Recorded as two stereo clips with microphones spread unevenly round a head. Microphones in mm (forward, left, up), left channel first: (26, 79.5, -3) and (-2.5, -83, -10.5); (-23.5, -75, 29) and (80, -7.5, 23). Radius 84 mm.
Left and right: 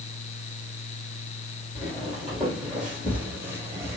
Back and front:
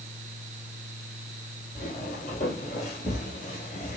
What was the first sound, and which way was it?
Footsteps, 165° left.